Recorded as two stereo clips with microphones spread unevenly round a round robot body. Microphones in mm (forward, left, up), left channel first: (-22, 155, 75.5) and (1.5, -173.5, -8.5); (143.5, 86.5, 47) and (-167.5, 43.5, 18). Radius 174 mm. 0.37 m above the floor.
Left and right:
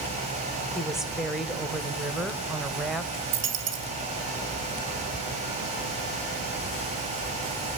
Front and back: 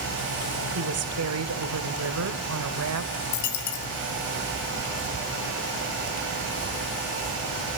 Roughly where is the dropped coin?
Ahead right.